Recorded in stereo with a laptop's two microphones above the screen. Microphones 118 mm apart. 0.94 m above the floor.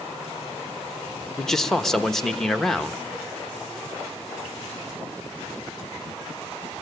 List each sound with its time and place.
1.4 s a man speaking: 5° left (ahead or behind), 1.2 m